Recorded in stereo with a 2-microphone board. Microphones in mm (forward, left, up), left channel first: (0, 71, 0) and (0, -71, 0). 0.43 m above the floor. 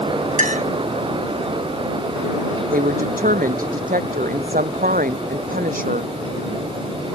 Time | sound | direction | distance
0.4 | a clink | 70° right (ahead or behind) | ?
2.7 | a woman speaking | 80° right | ?